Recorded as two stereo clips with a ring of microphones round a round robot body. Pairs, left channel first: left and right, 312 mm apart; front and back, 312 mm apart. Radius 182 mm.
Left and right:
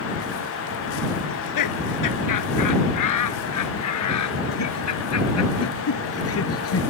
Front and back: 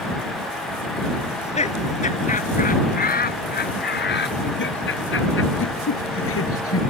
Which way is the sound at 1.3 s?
70° left.